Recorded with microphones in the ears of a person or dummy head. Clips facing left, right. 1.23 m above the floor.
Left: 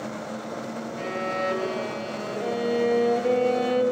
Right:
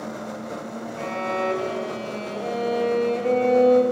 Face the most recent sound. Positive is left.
turn(degrees=20)  # may be behind; listen again after turning